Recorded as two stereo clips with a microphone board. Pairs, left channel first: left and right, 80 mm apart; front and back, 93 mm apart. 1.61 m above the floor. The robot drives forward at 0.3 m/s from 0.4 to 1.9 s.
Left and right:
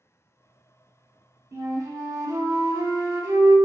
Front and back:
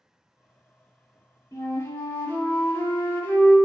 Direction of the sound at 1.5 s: 50° right.